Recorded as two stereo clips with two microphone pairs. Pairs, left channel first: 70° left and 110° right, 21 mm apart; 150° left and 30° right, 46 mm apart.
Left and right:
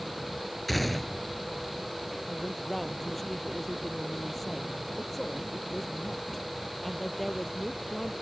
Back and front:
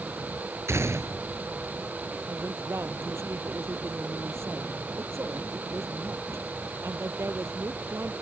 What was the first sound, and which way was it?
A gunshot, 20° right.